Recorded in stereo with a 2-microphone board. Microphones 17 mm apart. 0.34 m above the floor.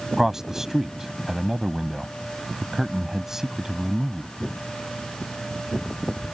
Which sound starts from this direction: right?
A man speaking, at 0.2 s.